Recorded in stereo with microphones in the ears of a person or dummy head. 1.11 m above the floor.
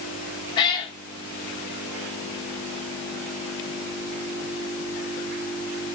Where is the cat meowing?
25° left (ahead or behind), 1.3 m.